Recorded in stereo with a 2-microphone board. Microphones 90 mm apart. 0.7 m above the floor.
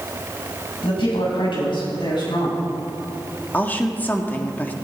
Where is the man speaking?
80° left, 5.5 m; by 2.6 s 60° left (ahead or behind), 6.5 m.